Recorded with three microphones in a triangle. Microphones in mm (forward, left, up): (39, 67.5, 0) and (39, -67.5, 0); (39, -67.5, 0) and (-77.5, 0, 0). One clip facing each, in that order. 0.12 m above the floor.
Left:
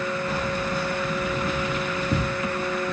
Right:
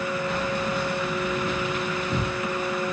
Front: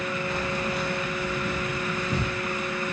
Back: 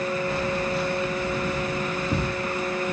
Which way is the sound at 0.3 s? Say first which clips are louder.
Even, back 3 dB; 110° left.